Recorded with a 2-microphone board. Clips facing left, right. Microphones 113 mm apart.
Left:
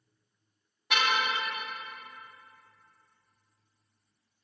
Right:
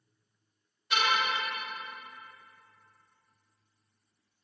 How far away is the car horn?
About 3 m.